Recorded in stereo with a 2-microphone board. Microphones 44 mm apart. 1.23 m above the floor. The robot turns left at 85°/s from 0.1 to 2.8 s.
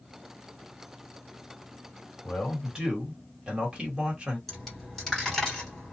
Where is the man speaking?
25° left, 1.5 m; by 4.4 s 25° right, 1.5 m.